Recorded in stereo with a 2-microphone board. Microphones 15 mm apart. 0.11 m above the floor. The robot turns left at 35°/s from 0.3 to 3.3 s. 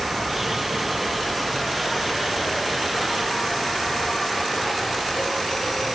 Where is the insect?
130° right; by 6.0 s 125° left.